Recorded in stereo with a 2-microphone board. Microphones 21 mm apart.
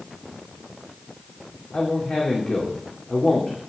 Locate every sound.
1.7 s a man speaking: 65° left (ahead or behind), 2.5 m